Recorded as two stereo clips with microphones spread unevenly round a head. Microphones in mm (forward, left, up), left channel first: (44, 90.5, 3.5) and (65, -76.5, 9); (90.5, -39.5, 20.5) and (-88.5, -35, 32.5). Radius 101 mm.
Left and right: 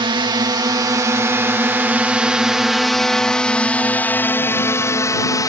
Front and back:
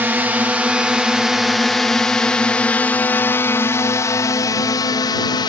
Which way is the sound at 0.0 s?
105° right.